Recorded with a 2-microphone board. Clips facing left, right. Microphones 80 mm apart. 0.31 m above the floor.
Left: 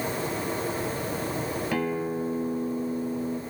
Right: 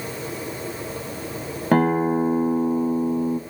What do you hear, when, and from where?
1.7 s a guitar: 45° right (ahead or behind), 0.5 m